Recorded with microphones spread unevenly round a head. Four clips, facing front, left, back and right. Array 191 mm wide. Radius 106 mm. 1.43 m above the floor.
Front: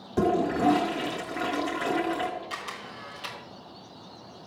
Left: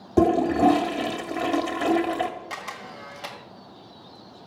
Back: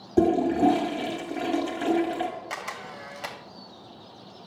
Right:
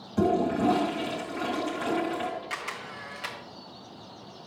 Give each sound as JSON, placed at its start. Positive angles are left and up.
{"t": 0.2, "sound": "a toilet flushing", "azimuth_deg": 105, "distance_m": 1.9}
{"t": 2.5, "sound": "a camera shutter", "azimuth_deg": 155, "distance_m": 1.7}